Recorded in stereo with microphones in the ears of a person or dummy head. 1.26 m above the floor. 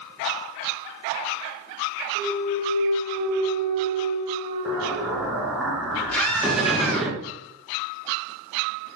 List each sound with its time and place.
2.1 s a clunk: 30° right (ahead or behind), 1.4 m
4.7 s an explosion: 5° right (ahead or behind), 0.6 m
6.1 s a scream: 10° left (ahead or behind), 1.8 m